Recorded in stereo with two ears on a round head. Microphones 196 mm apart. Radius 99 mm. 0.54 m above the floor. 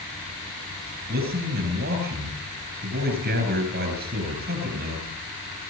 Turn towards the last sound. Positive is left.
turn(degrees=-50)  # may be behind; listen again after turning